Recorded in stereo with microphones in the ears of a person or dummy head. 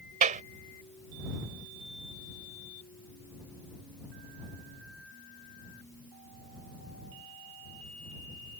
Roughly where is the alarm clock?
No alarm clock in this recording.